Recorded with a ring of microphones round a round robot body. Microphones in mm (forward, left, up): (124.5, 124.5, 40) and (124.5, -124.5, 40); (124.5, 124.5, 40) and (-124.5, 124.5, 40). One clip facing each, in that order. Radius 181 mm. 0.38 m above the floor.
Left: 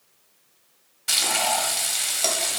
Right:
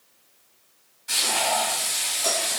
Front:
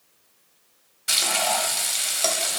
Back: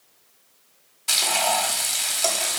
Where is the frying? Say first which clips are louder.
Right 1 dB, back 1 dB; 75° left, 0.8 m.